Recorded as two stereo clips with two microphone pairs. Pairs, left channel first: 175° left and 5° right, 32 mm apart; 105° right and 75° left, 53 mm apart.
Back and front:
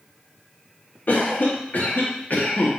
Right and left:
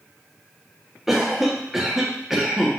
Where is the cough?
160° left, 1.2 m.